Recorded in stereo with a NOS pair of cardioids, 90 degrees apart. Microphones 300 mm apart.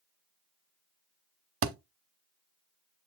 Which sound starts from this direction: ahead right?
A thud, at 1.6 s.